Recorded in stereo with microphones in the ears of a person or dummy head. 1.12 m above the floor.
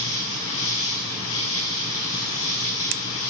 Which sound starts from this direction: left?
An insect, at 0.0 s.